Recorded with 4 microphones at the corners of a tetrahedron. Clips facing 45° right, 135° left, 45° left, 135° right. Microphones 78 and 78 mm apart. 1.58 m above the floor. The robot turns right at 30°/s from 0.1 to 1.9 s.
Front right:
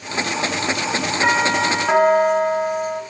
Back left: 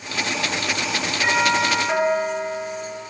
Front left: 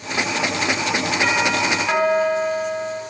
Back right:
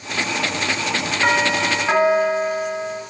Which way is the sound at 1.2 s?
80° right.